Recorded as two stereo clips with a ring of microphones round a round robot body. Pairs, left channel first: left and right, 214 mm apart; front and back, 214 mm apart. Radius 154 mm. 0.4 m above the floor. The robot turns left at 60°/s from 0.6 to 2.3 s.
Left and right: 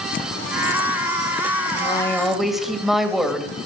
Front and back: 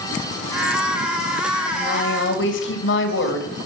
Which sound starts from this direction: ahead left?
A woman speaking, at 1.7 s.